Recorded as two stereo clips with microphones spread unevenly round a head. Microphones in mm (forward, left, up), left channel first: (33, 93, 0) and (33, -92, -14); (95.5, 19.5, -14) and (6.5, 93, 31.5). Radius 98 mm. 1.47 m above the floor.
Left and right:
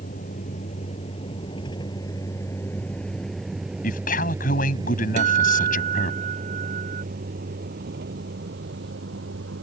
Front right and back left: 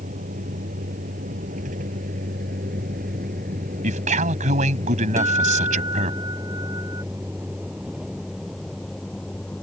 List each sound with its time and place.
0.0 s a vehicle: 145° left; by 9.6 s 125° right
3.8 s a man speaking: 140° left
5.2 s a guitar: 145° right